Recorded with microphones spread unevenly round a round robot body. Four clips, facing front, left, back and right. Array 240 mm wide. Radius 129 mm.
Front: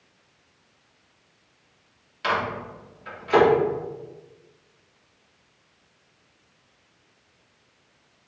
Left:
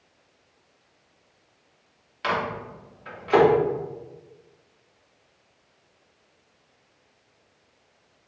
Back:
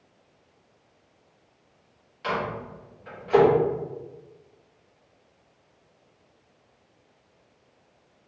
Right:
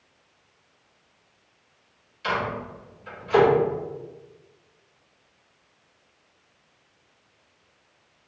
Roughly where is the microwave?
Ahead left.